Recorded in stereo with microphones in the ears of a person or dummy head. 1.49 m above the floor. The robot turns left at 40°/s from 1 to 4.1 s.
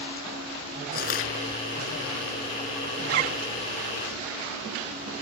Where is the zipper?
65° right (ahead or behind); by 3.4 s 50° right (ahead or behind).